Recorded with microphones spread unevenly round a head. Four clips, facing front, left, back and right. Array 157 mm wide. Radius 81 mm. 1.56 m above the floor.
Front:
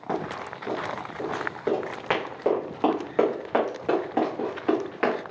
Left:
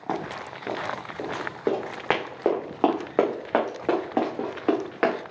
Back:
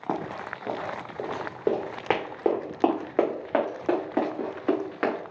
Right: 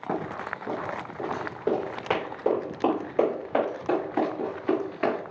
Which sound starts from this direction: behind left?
Running footsteps, at 0.1 s.